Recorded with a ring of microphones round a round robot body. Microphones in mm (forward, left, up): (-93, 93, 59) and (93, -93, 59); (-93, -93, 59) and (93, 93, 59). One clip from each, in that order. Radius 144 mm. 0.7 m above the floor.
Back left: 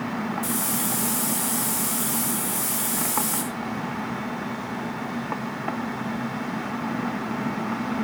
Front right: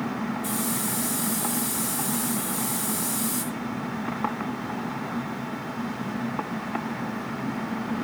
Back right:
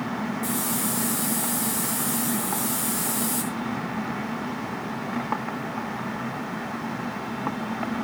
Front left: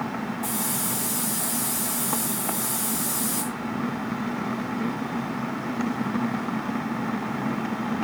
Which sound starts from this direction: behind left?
A hiss, at 0.4 s.